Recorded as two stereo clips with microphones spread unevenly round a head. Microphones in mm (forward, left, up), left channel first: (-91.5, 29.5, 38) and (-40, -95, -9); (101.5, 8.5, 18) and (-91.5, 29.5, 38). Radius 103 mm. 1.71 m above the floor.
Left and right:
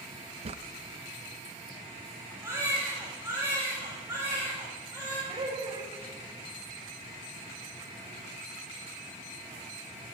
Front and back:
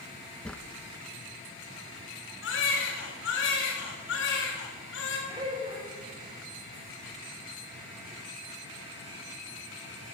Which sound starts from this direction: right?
A drawer, at 0.5 s.